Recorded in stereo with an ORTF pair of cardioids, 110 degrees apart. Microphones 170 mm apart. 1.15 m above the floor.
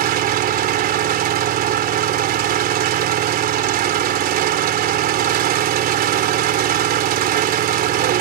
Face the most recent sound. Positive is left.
turn(degrees=-60)